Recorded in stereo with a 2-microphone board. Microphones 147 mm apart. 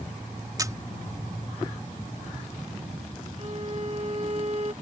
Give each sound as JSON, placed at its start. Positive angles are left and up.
{"t": 0.6, "sound": "a camera shutter", "side_deg": -25}
{"t": 3.4, "sound": "a violin", "side_deg": -45}